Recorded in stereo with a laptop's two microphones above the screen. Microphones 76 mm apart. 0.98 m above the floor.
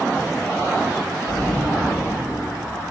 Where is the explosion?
55° left (ahead or behind), 1.5 m.